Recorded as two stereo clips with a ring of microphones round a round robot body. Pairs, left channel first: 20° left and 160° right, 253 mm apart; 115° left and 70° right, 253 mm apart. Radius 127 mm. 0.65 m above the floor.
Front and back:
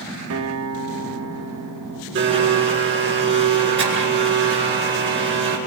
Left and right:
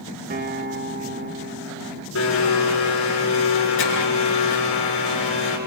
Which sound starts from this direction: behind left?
A blender, at 2.1 s.